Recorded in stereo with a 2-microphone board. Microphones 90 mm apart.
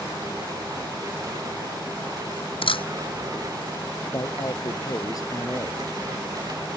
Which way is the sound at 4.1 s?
40° left (ahead or behind).